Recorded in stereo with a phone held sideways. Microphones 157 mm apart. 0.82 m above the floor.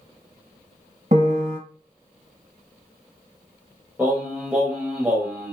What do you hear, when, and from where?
1.1 s a piano: 50° right (ahead or behind), 1.1 m
4.0 s singing: 10° right (ahead or behind), 0.9 m